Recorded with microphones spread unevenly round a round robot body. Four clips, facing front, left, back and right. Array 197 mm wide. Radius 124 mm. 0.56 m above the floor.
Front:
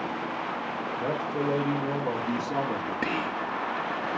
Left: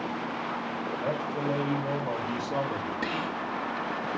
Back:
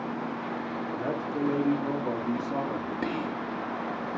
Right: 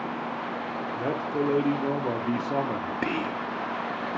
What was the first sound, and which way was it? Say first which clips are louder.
A man speaking: right 4 dB, front 2 dB; 100° right.